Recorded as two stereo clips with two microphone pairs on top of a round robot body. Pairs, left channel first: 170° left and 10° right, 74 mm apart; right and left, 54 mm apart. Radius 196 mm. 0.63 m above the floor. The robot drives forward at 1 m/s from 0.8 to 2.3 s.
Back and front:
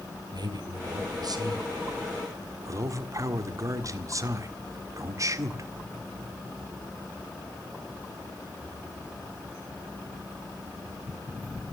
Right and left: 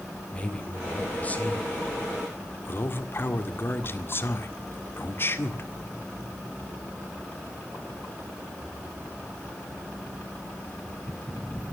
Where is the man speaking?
25° right, 3 m; by 5.7 s 50° right, 1.8 m.